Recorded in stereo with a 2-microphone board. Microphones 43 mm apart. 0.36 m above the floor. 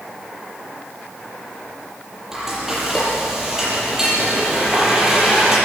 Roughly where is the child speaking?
No child speaking in this recording.